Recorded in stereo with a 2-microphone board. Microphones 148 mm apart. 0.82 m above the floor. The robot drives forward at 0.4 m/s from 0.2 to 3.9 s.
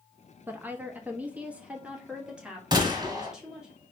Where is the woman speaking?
15° right (ahead or behind), 0.6 m; by 3.7 s 5° right (ahead or behind), 1.7 m.